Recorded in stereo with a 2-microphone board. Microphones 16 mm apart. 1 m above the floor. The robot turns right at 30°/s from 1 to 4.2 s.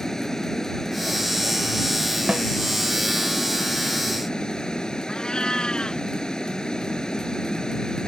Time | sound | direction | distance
0.0 | running water | 35° left | ?
2.3 | a snare drum | 80° right | ?
5.1 | a cat meowing | 60° left (ahead or behind) | ?